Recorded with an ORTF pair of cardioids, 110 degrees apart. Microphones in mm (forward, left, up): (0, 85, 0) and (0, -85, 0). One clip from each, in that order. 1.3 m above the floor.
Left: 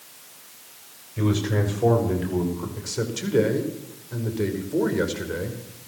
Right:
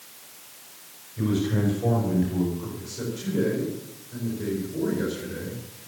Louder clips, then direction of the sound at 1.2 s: Left 2 dB; 50° left.